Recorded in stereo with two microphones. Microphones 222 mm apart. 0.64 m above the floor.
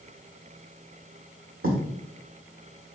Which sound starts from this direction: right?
Writing, at 1.6 s.